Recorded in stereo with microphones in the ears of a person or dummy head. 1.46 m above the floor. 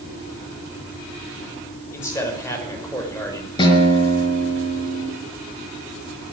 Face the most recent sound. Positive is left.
turn(degrees=25)  # may be behind; listen again after turning